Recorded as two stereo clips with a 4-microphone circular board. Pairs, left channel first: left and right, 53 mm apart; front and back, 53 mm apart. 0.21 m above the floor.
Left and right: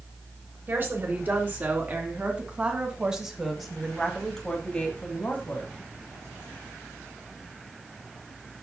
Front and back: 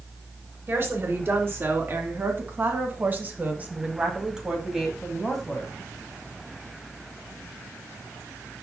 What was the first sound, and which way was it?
A woman speaking, 140° right.